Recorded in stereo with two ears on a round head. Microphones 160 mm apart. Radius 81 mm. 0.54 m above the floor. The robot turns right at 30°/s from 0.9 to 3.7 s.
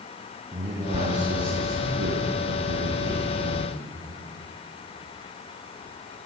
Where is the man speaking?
140° right, 7.5 m; by 3.8 s 55° right, 7.5 m.